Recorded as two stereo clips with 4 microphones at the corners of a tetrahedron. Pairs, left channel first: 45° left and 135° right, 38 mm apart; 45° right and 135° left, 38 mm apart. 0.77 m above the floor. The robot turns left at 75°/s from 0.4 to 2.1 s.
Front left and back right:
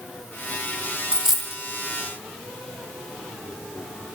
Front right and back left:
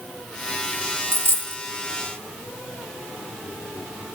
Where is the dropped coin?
155° left, 0.9 m; by 1.6 s 120° left, 0.9 m.